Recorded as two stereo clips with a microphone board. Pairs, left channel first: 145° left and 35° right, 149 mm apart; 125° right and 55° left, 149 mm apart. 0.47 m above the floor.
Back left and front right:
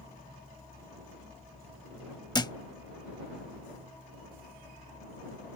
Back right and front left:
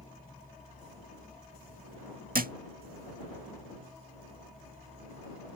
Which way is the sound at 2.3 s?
80° left.